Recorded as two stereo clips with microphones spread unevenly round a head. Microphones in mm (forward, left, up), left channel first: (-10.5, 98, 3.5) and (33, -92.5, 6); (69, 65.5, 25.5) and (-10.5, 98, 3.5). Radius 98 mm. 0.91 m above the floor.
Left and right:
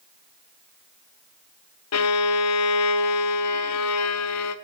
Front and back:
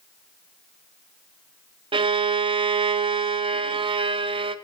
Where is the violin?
125° left, 0.7 m.